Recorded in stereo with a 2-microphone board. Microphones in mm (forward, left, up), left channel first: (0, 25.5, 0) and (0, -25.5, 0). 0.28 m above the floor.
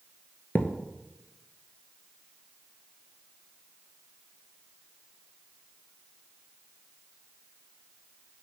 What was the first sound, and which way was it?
A thud, 35° left (ahead or behind).